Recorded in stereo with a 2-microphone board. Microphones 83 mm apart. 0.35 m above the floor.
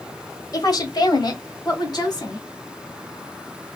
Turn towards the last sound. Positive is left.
turn(degrees=55)  # may be behind; listen again after turning